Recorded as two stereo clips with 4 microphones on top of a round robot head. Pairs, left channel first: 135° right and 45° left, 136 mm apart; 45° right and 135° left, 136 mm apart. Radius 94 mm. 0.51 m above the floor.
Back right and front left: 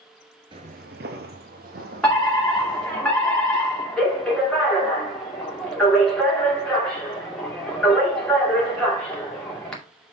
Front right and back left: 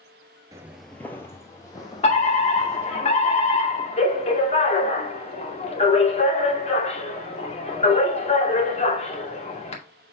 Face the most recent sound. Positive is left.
turn(degrees=-50)